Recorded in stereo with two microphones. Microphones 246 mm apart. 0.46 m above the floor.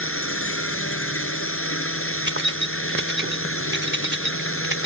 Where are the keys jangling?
50° right (ahead or behind).